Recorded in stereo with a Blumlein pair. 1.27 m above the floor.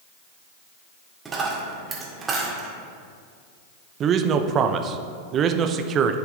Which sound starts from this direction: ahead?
A dropped coin, at 1.2 s.